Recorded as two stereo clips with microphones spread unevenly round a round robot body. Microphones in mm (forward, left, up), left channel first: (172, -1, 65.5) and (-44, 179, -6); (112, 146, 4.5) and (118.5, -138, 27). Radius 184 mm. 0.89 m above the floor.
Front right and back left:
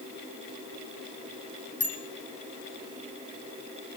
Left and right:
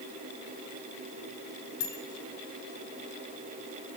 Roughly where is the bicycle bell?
Left.